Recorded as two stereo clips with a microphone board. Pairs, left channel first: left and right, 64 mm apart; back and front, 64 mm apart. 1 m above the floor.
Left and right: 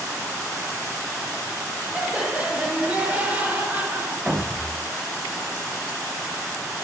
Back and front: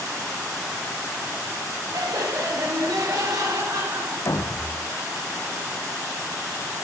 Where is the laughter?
10° right, 3 m; by 4.2 s 25° right, 4 m.